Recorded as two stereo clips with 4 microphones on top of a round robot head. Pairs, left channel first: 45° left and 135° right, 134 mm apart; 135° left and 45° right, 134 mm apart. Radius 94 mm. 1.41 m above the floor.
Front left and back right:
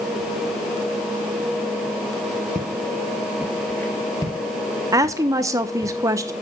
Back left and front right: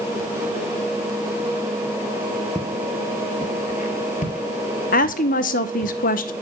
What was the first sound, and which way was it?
Footsteps, 150° right.